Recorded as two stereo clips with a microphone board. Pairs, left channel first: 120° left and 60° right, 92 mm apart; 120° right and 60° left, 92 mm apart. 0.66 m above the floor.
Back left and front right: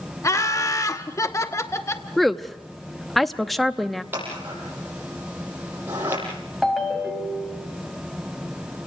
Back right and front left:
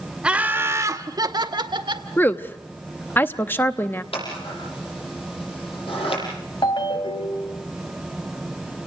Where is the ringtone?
150° right, 3 m.